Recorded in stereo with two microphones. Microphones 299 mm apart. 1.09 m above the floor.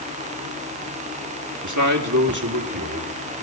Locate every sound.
1.6 s a man speaking: 75° right (ahead or behind), 2.5 m; by 3.4 s 85° right, 5.5 m